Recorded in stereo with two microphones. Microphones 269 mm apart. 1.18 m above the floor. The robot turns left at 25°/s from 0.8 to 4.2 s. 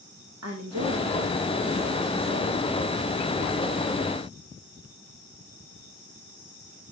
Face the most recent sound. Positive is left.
turn(degrees=-160)